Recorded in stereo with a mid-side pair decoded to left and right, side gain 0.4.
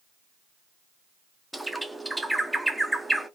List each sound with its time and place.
1.5 s a bird: 10° right, 1.1 m